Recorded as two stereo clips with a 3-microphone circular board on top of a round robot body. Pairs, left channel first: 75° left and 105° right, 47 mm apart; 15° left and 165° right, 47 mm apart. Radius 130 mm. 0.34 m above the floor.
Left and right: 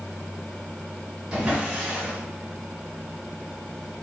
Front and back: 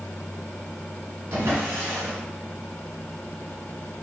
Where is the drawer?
175° left, 1.3 m.